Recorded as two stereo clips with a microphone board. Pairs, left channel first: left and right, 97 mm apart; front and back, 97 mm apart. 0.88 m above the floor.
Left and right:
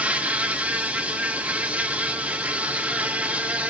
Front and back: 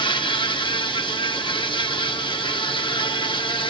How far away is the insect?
About 1.2 m.